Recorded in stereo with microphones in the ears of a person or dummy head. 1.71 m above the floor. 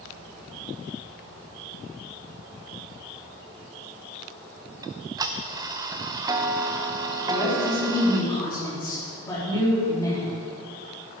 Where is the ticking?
20° right (ahead or behind), 0.5 m.